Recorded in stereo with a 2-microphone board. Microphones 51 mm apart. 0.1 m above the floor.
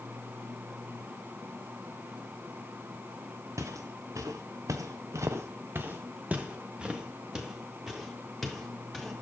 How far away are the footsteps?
About 1.1 m.